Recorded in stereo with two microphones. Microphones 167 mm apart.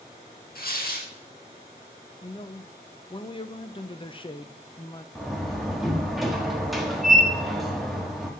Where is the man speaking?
30° left (ahead or behind), 0.6 m.